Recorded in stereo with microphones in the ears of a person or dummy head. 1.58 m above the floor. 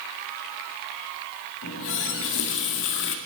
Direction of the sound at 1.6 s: 65° left (ahead or behind).